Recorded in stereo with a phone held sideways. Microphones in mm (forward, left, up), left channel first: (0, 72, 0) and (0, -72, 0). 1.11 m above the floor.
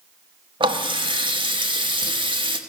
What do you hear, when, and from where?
0.6 s a running tap: 30° right (ahead or behind), 0.9 m